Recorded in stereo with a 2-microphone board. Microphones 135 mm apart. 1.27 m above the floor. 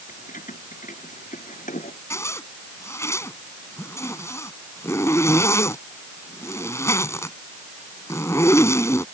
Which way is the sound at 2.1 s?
20° left (ahead or behind).